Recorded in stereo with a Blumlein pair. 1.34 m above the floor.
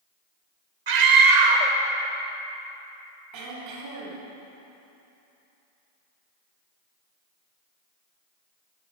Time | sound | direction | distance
0.9 | a scream | 55° right | 1.3 m
3.3 | throat clearing | 45° right | 2 m